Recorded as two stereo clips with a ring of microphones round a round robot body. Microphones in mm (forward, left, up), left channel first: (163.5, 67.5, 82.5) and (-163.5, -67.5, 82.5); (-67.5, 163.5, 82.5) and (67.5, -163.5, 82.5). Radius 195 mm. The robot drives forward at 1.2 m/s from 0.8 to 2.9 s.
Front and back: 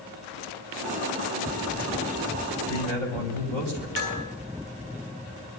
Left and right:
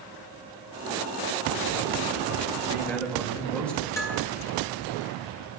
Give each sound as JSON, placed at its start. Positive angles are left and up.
{"t": 2.7, "sound": "a man speaking", "azimuth_deg": -160, "distance_m": 6.5}
{"t": 4.0, "sound": "dishes clattering", "azimuth_deg": -165, "distance_m": 10.0}